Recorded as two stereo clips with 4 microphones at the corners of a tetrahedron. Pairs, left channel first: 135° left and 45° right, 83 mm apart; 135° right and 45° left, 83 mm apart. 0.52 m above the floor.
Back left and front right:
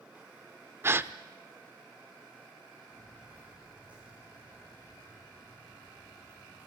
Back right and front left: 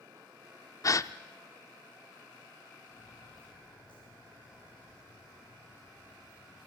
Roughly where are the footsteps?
Behind right.